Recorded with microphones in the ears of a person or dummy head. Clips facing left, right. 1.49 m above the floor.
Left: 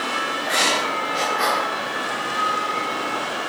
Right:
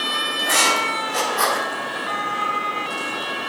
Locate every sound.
0.4 s writing: 60° right (ahead or behind), 1.6 m